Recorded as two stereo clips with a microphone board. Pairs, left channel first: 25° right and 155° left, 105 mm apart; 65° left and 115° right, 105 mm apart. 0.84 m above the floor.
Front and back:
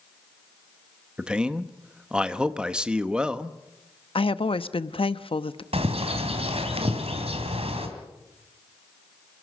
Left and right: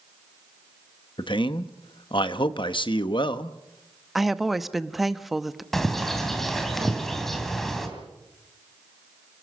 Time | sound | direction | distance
1.2 | a man speaking | 80° left | 1.0 m
4.2 | a woman speaking | 25° right | 0.8 m
5.7 | a bird | 155° left | 3 m